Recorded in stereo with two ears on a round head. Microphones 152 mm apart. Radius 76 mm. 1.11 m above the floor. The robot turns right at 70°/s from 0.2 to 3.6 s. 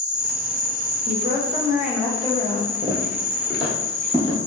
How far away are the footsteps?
About 1.3 m.